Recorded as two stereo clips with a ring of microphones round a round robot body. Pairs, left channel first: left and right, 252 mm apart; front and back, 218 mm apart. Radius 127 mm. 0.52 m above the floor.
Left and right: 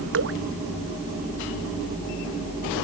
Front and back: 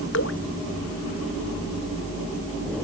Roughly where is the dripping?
Ahead right.